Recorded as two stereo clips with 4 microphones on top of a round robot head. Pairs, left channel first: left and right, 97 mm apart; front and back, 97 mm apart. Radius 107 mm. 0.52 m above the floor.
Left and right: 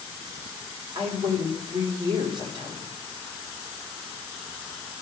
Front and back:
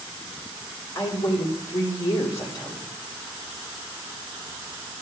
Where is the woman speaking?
55° right, 1.7 m.